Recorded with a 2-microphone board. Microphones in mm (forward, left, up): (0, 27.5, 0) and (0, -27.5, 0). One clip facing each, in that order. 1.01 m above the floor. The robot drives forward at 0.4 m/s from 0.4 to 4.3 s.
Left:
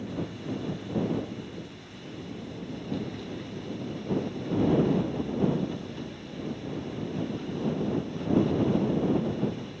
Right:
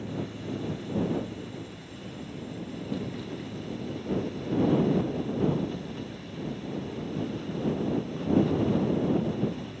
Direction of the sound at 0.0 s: 15° right (ahead or behind).